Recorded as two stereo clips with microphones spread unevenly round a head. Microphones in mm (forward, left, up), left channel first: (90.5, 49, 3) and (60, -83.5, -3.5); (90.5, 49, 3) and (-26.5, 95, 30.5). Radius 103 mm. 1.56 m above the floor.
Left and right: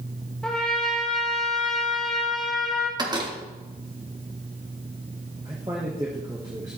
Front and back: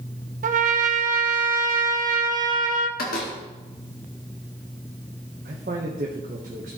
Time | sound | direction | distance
0.4 | a trumpet | 165° left | 0.8 m
3.0 | a door slam | 45° right | 1.9 m
5.5 | a man speaking | 175° right | 1.2 m